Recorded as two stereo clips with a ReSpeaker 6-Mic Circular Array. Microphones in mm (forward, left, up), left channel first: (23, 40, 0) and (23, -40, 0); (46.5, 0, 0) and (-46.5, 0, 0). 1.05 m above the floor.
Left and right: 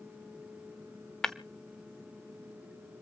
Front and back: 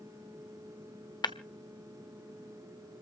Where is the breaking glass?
10° left, 0.9 m.